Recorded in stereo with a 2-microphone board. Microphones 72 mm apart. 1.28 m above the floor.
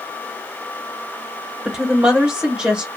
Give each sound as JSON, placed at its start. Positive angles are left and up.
{"t": 1.6, "sound": "a woman speaking", "side_deg": -15, "distance_m": 1.4}